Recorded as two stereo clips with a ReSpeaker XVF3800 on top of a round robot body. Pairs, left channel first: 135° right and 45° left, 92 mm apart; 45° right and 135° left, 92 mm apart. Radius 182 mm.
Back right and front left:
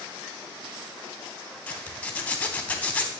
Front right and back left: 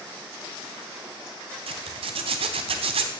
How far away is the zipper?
About 0.7 m.